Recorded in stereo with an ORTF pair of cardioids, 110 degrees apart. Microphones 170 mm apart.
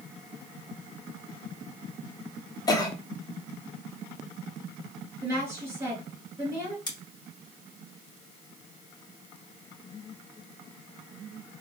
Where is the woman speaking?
20° right, 2 m.